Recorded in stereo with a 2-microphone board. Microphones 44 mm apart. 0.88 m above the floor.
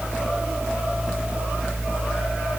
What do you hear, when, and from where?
Only background noise.